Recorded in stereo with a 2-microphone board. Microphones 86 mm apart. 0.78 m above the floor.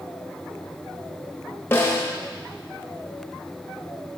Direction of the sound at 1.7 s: 25° left (ahead or behind).